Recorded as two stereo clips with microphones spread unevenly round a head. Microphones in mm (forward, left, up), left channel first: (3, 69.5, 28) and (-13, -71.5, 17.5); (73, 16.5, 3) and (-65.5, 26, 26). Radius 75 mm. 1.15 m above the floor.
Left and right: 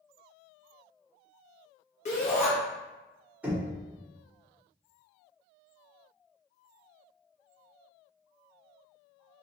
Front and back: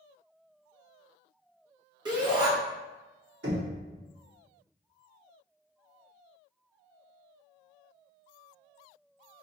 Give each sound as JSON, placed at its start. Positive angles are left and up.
{"t": 2.0, "sound": "a shout", "azimuth_deg": 115, "distance_m": 1.1}
{"t": 3.4, "sound": "knocking", "azimuth_deg": -175, "distance_m": 0.9}